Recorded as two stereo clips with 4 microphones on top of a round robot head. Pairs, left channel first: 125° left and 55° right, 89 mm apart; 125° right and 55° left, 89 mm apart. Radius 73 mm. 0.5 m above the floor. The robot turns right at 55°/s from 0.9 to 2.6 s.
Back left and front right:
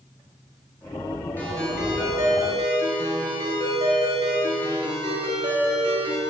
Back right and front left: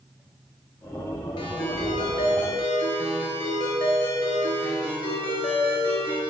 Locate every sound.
1.4 s a ringtone: 165° right, 4.5 m; by 6.2 s 95° right, 4.5 m